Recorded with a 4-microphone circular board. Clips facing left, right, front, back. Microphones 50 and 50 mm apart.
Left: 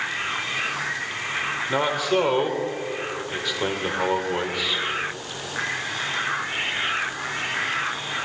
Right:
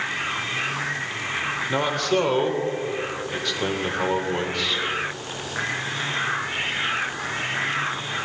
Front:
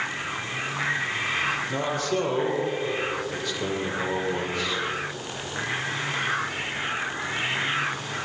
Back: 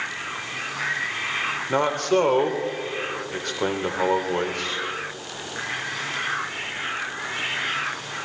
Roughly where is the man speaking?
Behind.